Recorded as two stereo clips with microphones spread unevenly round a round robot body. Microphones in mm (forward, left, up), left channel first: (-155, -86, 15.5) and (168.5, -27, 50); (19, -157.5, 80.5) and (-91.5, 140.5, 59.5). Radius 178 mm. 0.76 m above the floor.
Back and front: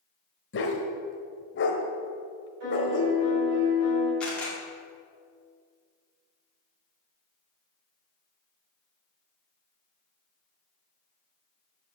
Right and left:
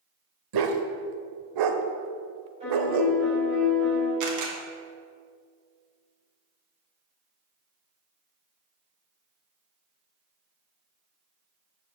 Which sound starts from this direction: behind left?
A dog barking, at 0.5 s.